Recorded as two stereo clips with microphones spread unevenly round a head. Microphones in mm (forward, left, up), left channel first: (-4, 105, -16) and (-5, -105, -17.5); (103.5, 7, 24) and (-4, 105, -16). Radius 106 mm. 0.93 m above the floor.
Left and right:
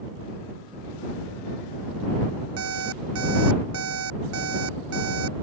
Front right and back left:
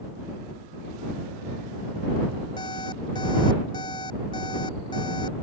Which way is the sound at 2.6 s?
115° right.